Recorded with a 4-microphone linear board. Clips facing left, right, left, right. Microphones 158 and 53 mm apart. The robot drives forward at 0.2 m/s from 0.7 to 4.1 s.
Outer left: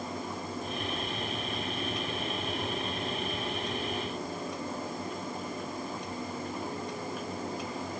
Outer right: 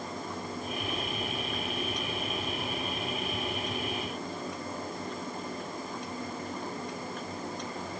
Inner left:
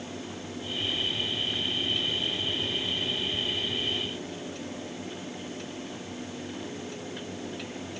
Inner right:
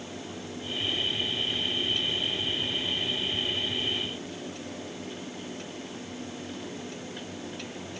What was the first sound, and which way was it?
Only background noise.